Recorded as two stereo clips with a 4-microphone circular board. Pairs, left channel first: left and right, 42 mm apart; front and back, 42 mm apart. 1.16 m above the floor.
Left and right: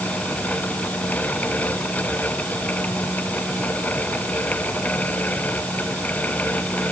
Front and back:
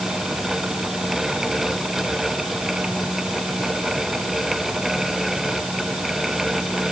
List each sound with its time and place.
Only background noise.